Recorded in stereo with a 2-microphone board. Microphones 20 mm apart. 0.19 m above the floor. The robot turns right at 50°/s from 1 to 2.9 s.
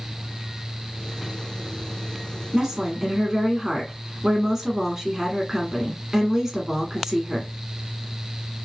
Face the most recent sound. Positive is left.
turn(degrees=-20)  # may be behind; listen again after turning